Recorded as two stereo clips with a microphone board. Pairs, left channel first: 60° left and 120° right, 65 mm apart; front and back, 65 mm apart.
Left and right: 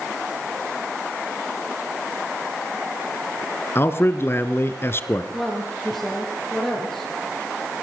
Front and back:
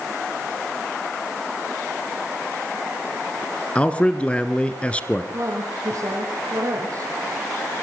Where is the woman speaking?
145° left, 4.5 m.